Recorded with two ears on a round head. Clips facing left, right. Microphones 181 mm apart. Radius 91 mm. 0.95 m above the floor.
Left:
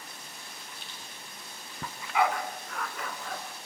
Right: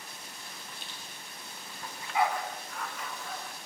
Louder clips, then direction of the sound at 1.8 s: Left 2 dB; 60° left (ahead or behind).